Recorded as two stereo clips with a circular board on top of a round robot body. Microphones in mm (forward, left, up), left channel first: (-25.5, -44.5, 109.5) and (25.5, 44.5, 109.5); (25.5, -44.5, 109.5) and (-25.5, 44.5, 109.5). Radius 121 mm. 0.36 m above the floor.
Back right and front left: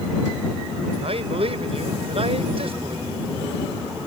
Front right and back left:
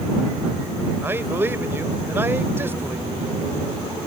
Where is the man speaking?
55° left.